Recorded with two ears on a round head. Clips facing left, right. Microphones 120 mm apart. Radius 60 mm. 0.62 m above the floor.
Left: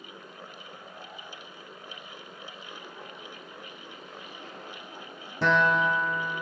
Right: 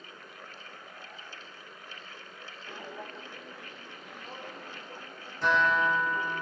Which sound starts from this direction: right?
Footsteps, at 2.7 s.